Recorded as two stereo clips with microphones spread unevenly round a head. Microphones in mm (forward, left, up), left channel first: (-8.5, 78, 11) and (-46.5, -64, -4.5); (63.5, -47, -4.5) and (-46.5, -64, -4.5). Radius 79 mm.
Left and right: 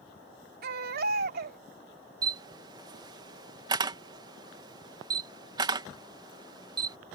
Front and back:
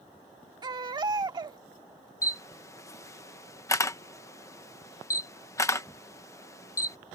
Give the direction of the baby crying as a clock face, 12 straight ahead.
4 o'clock.